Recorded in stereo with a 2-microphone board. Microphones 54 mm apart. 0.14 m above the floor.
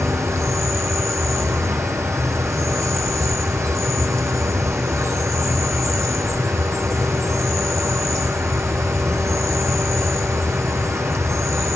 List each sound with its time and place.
0.0 s an insect: 70° right (ahead or behind), 1.5 m